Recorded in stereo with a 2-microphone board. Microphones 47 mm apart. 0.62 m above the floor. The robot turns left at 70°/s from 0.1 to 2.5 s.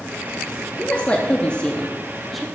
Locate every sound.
0.8 s a woman speaking: 25° left (ahead or behind), 0.6 m; by 2.5 s 5° right (ahead or behind), 0.6 m